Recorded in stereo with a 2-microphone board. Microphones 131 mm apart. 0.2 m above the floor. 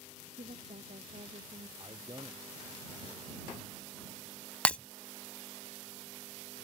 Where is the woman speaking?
70° right (ahead or behind); by 1.7 s 65° right (ahead or behind).